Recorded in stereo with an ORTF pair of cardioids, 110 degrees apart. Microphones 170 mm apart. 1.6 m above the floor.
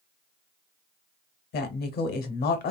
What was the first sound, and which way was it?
A woman speaking, 70° left.